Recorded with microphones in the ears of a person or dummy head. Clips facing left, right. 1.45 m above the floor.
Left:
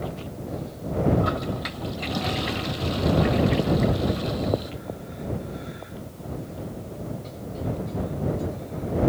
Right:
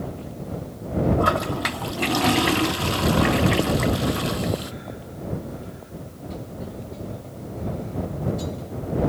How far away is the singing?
I don't hear singing.